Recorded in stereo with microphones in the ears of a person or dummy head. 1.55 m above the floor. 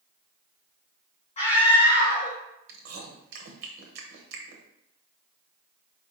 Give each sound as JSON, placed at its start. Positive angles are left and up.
{"t": 1.4, "sound": "a scream", "side_deg": 35, "distance_m": 1.3}
{"t": 2.7, "sound": "chewing", "side_deg": -65, "distance_m": 0.8}